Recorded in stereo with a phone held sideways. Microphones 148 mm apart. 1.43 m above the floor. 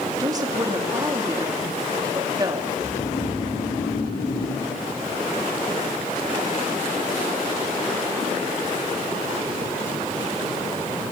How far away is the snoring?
About 4.5 m.